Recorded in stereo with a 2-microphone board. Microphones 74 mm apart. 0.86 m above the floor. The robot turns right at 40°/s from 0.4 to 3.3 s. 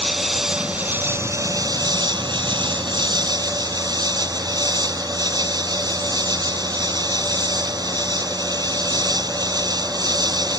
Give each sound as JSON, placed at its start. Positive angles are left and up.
{"t": 0.0, "sound": "an insect", "azimuth_deg": 180}